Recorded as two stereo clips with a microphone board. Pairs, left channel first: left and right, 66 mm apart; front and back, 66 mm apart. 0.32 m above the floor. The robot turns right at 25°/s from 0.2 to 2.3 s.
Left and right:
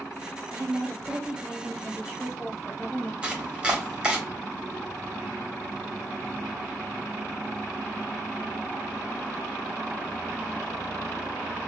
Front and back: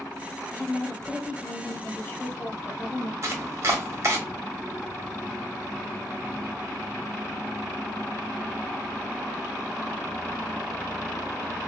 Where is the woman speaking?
45° right, 1.2 m; by 3.1 s straight ahead, 1.2 m.